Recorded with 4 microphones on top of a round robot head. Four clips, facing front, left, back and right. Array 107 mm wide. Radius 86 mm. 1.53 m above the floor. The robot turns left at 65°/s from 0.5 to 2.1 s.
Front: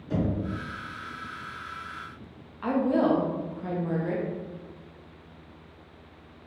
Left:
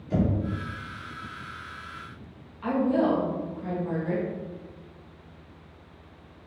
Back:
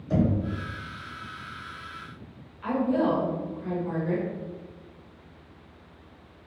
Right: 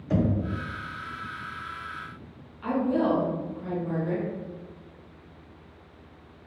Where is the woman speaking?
5° left, 0.9 m.